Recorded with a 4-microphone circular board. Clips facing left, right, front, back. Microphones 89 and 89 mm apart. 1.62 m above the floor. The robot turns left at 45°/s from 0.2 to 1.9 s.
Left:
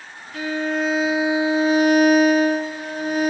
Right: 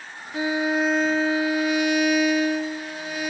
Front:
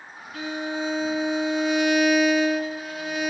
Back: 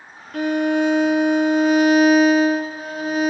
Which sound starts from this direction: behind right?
A violin, at 0.3 s.